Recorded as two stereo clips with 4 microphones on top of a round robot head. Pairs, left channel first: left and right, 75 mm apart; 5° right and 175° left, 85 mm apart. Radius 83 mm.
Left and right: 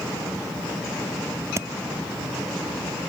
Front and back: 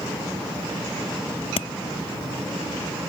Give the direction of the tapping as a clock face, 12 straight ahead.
1 o'clock.